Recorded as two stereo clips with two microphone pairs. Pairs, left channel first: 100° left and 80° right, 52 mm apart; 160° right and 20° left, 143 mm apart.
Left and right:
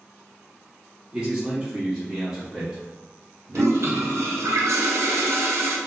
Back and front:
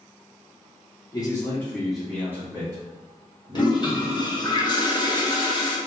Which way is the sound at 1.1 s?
135° right.